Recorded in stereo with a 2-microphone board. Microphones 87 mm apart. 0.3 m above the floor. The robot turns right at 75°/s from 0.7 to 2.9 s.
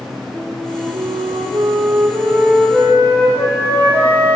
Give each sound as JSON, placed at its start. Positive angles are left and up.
{"t": 0.3, "sound": "a flute", "azimuth_deg": -145, "distance_m": 6.5}